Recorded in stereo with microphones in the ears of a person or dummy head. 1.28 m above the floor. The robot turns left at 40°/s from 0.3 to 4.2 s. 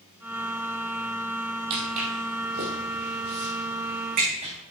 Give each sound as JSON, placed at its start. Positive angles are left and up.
{"t": 1.7, "sound": "footsteps", "side_deg": -30, "distance_m": 2.5}